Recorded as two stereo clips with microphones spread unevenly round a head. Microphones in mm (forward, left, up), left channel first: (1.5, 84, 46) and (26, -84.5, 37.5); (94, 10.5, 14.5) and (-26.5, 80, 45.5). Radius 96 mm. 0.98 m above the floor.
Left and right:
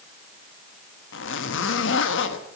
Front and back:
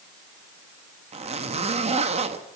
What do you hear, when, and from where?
1.1 s a zipper: 105° left, 1.1 m